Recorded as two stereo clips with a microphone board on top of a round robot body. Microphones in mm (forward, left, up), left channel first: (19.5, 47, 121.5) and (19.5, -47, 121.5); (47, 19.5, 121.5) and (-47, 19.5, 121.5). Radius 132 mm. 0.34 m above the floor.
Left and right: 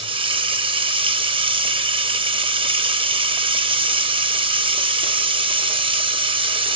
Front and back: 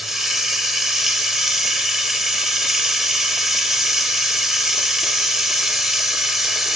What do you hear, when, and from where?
0.0 s running water: 95° right, 1.2 m